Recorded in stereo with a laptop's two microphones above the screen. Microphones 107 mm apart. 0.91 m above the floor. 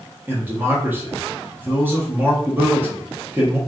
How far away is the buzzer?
I don't hear a buzzer.